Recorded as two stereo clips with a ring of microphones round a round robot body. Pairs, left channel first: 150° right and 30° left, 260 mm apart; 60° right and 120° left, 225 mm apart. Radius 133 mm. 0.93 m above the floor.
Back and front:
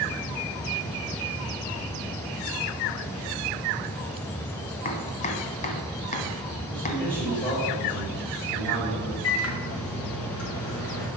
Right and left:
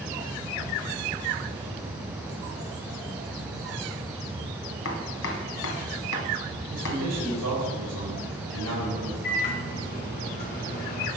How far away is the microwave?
About 2 m.